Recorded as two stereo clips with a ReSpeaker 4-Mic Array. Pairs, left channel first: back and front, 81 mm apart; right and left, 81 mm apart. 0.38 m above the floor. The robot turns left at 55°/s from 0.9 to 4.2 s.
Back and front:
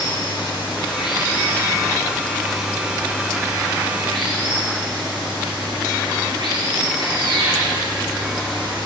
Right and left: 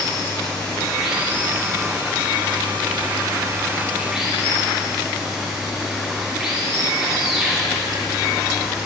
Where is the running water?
175° right, 5.5 m; by 8.9 s 5° left, 5.5 m.